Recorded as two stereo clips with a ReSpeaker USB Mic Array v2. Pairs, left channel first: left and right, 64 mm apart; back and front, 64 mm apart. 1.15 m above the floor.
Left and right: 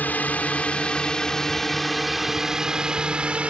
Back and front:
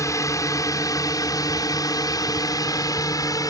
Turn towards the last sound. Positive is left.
turn(degrees=-160)